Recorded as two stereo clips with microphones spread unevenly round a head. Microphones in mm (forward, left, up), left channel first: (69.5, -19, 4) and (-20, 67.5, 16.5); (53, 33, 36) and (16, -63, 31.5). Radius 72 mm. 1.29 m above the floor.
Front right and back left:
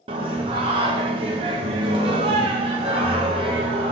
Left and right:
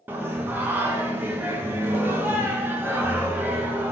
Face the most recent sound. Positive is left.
turn(degrees=-175)